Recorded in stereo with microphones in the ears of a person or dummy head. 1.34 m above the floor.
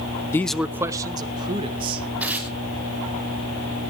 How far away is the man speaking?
About 0.6 m.